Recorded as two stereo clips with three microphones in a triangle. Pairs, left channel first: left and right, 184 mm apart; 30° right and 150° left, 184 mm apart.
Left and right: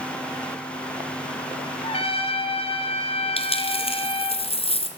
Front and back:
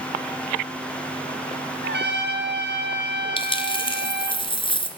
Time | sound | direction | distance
1.8 | a trumpet | 145° left | 4 m
3.4 | a dropped coin | 30° left | 3 m